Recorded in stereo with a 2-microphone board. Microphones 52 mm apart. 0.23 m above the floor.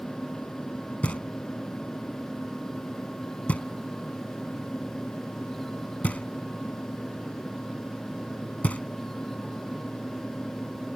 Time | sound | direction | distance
1.0 | knocking | 30° left (ahead or behind) | ?